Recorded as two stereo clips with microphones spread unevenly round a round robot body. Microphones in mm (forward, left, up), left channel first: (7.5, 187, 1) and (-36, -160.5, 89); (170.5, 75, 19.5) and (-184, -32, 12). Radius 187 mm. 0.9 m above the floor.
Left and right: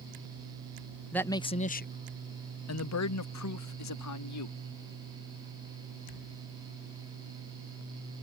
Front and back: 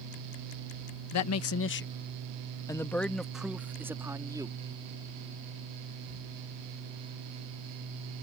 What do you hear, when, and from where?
1.1 s a man speaking: 20° left; by 4.6 s 115° left